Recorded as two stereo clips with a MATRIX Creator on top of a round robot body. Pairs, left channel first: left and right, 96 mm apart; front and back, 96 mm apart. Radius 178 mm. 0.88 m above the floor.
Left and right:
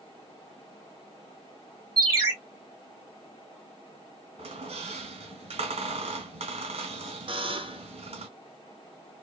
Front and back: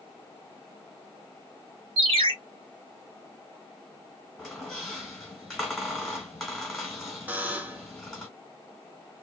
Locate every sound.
2.0 s a ringtone: 150° right, 2.5 m
4.4 s a squeak: 90° right, 1.5 m
7.3 s a buzzer: 105° right, 1.3 m